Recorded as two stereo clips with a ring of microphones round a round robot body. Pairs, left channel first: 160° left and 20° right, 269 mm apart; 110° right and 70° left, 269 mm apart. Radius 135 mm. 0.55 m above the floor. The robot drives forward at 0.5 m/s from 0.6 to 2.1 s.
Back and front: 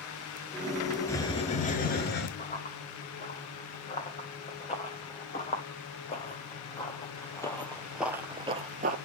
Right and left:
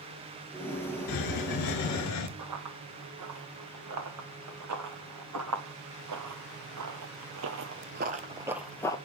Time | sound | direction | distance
1.1 | a hiss | 120° right | 0.7 m
2.4 | running footsteps | 95° left | 3 m